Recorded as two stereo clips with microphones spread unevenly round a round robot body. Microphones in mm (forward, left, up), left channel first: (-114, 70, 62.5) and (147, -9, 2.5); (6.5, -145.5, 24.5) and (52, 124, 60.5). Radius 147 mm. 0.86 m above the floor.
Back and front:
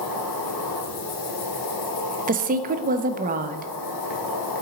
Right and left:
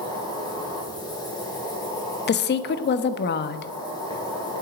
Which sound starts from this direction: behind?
An insect, at 0.0 s.